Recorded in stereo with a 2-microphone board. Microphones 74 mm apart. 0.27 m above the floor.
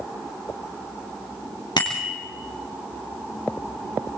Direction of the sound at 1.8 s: 75° left (ahead or behind).